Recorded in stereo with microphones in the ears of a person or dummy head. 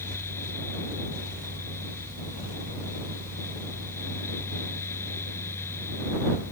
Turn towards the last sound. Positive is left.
turn(degrees=15)  # may be behind; listen again after turning